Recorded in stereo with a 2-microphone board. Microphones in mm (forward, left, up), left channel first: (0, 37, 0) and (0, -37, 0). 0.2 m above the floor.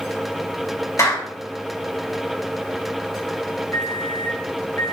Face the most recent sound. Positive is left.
turn(degrees=45)  # may be behind; listen again after turning